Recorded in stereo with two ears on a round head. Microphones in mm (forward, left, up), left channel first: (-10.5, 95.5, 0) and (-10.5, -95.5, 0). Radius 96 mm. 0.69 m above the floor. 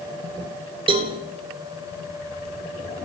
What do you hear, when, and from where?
0.9 s a cowbell: 25° right (ahead or behind), 2 m